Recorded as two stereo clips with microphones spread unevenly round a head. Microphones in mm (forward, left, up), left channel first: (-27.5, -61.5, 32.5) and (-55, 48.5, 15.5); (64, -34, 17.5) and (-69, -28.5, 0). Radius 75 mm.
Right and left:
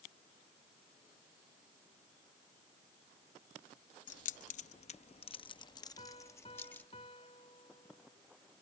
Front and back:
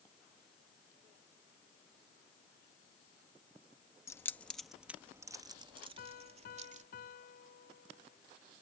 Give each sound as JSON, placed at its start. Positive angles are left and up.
{"t": 4.1, "sound": "keys jangling", "azimuth_deg": -75}
{"t": 6.0, "sound": "a piano", "azimuth_deg": -20}